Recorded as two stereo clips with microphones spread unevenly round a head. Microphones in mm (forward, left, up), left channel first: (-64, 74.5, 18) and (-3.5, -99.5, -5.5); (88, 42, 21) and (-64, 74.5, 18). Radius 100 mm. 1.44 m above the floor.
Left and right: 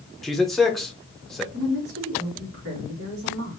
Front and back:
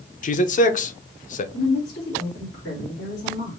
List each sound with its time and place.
0.2 s a man speaking: 25° left, 0.7 m
1.5 s a woman speaking: 50° right, 2 m